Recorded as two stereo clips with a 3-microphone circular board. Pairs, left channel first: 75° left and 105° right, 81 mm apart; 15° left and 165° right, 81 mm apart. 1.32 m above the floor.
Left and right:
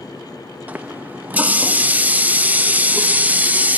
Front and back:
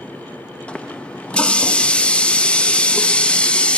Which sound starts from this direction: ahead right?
A running tap, at 0.7 s.